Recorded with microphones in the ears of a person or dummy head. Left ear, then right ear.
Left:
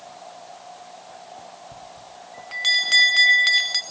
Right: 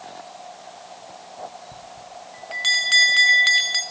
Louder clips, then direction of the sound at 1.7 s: Right 2 dB; centre (ahead or behind).